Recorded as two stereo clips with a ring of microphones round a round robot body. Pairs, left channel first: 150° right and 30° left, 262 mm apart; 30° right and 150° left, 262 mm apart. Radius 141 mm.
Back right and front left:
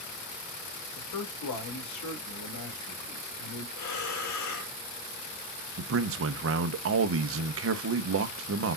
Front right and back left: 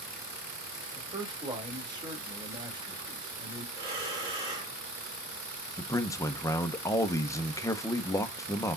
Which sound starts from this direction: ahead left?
A man speaking, at 5.8 s.